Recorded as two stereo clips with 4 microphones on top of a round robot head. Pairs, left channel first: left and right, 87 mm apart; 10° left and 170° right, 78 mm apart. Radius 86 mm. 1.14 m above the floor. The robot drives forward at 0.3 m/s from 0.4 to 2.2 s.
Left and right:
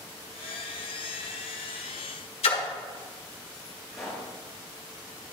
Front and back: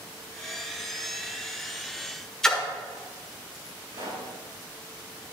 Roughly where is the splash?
Left.